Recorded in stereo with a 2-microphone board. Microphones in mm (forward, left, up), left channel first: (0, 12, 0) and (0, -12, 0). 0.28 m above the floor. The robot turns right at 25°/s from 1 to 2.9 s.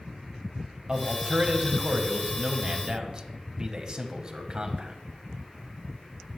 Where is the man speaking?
105° right, 1.5 m; by 5.0 s 55° right, 1.5 m.